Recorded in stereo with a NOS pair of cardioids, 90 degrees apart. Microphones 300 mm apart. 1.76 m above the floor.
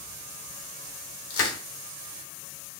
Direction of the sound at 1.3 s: 50° left.